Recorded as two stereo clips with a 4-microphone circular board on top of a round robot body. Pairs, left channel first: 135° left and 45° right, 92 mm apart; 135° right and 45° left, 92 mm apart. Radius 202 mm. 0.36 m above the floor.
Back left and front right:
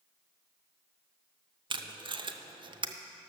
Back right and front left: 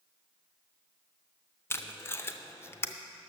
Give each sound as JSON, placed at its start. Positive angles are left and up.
{"t": 1.7, "sound": "tape being pulled", "azimuth_deg": -75, "distance_m": 0.7}